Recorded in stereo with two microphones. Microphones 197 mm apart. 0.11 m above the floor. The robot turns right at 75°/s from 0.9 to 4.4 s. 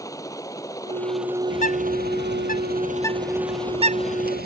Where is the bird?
35° left (ahead or behind); by 4.5 s 55° right (ahead or behind).